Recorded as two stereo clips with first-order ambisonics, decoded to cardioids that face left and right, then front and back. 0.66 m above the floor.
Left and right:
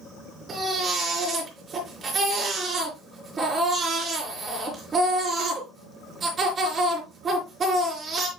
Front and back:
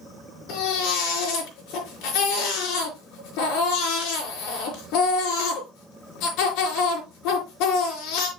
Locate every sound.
0.5 s a baby crying: 20° right, 4.5 m